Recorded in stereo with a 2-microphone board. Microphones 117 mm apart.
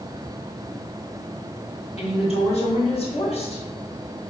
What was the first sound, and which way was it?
A woman speaking, 55° left (ahead or behind).